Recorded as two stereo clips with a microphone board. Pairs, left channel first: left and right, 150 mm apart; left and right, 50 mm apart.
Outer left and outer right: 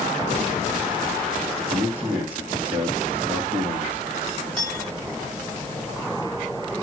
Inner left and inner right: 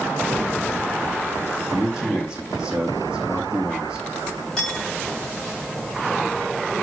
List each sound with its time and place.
1.7 s a man speaking: 15° right (ahead or behind), 3.5 m
4.6 s a clink: 5° left (ahead or behind), 5.5 m